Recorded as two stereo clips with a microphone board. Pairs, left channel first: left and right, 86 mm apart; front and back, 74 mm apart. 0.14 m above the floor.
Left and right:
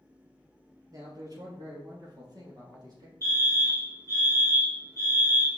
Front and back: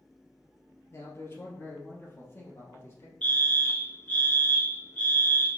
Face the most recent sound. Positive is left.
turn(degrees=-60)